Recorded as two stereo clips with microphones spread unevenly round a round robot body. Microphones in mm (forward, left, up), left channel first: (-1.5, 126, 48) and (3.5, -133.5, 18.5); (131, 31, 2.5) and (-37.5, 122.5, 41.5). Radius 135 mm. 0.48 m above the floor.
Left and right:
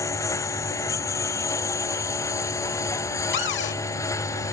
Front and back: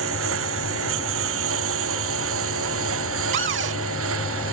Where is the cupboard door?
140° left.